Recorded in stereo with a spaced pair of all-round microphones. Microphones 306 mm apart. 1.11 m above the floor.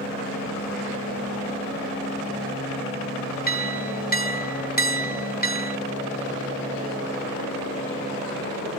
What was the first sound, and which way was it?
A clink, 30° left (ahead or behind).